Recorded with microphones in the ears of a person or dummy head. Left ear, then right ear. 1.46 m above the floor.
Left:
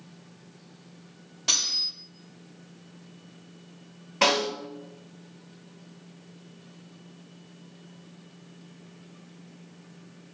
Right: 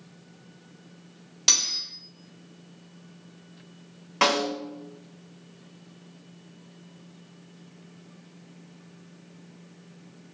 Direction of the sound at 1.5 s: 55° right (ahead or behind).